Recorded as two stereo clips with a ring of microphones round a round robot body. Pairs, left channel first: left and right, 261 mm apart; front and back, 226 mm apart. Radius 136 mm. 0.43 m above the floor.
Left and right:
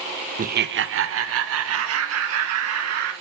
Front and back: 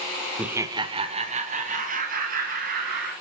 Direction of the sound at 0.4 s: 100° right.